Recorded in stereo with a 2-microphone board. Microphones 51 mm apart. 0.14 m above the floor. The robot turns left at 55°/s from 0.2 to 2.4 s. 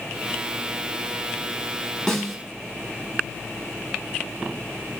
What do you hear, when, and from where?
2.1 s a snare drum: 5° left (ahead or behind), 1.1 m; by 2.4 s centre (ahead or behind), 1.1 m